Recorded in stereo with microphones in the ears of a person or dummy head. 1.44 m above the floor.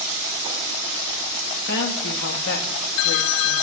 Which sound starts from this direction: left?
A woman speaking, at 1.7 s.